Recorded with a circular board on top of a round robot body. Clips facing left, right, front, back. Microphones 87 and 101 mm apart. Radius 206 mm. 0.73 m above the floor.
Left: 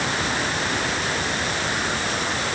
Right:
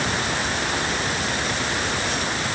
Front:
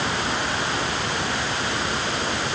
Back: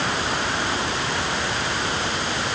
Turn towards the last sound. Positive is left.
No sound to turn to.